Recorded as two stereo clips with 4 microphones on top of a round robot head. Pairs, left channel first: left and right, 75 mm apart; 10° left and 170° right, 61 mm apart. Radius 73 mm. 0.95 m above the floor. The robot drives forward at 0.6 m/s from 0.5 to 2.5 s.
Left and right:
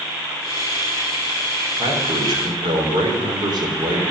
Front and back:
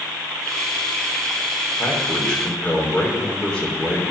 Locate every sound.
1.8 s a man speaking: 65° right, 3.5 m; by 4.1 s 75° right, 3.5 m